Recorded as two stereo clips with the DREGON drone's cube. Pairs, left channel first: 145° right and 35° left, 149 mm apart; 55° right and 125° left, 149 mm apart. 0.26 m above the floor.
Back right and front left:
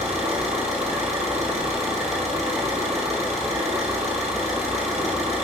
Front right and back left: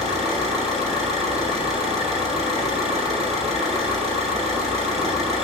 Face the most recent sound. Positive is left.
turn(degrees=80)